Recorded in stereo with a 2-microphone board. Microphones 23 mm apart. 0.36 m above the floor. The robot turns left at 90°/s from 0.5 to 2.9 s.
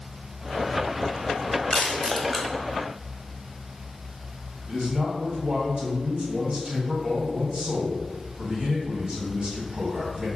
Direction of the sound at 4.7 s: 55° right (ahead or behind).